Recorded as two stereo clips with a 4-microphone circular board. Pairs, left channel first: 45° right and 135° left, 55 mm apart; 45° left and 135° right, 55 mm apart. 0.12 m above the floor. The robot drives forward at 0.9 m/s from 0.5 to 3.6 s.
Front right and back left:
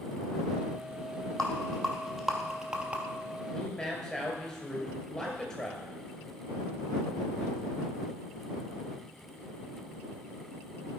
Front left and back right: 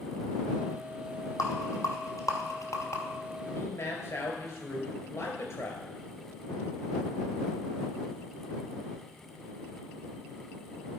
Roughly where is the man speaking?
Ahead left.